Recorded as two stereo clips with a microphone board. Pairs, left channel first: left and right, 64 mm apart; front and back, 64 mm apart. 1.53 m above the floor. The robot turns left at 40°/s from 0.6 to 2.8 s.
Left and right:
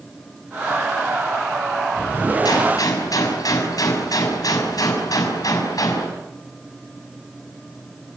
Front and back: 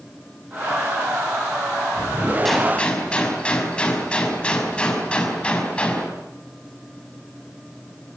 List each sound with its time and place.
2.5 s a gunshot: 85° left, 5.5 m; by 6.1 s 75° left, 5.5 m